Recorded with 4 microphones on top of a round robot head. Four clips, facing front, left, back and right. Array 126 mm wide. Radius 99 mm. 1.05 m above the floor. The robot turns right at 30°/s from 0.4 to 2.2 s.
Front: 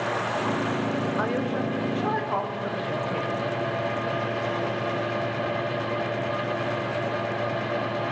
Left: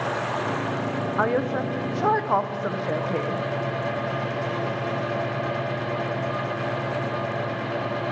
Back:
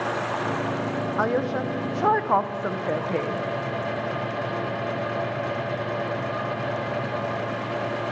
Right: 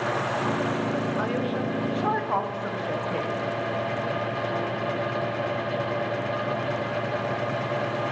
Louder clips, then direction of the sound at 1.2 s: Left 3 dB, back 2 dB; 120° left.